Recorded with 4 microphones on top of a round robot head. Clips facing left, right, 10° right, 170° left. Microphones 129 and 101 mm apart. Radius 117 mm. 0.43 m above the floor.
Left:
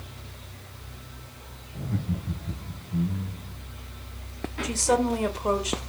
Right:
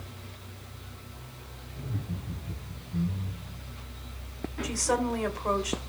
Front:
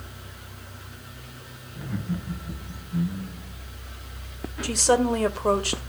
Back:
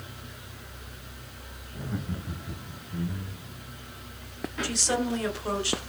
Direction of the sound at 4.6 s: 25° left.